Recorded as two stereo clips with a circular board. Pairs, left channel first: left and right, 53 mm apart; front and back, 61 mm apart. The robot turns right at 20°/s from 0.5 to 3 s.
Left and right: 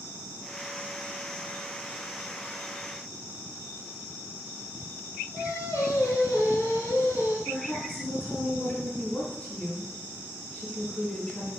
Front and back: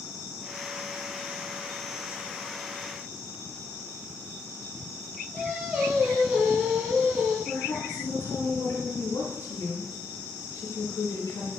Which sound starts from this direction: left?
Singing, at 5.3 s.